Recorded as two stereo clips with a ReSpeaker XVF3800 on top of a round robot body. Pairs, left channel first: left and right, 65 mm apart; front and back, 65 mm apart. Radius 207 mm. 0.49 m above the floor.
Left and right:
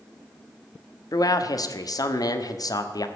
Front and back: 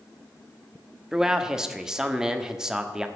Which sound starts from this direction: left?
A man speaking, at 1.1 s.